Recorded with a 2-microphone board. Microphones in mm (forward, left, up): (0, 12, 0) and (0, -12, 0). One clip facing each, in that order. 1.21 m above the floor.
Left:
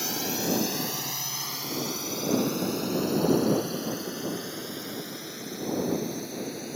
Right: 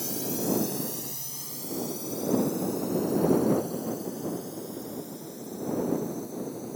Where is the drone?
45° left (ahead or behind); by 6.8 s 60° left (ahead or behind).